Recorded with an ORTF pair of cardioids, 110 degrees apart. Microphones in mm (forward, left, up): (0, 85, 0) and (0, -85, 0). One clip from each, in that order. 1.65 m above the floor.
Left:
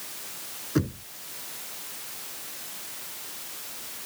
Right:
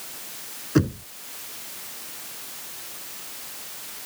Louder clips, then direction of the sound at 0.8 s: Right 6 dB; 25° right.